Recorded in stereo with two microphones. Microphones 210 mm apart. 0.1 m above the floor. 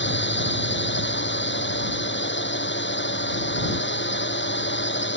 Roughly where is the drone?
Left.